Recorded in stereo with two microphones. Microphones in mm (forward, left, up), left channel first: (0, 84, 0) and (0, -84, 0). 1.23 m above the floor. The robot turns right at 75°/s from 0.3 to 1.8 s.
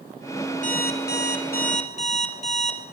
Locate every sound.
0.6 s an alarm clock: 50° left, 1.8 m; by 2.8 s 140° left, 1.8 m